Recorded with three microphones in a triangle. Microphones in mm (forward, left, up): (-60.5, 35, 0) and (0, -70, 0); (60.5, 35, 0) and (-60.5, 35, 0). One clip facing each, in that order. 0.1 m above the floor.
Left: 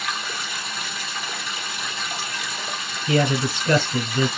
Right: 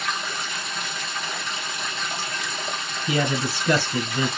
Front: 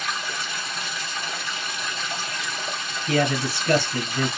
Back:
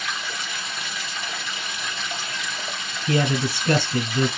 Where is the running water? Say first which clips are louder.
Right 1 dB, front 1 dB; 30° left, 1.7 m.